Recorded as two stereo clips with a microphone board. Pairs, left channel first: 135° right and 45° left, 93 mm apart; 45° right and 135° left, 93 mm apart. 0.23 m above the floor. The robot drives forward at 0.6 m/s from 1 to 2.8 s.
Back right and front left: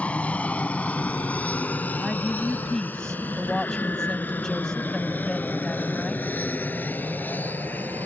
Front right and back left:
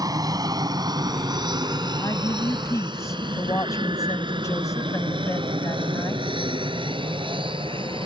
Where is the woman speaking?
40° right; by 6.2 s 55° right.